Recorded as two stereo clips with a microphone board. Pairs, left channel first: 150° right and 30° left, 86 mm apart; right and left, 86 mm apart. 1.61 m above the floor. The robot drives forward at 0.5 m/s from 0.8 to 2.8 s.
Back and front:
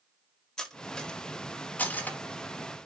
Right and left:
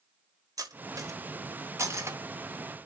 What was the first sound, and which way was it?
Cutlery clinking, 125° left.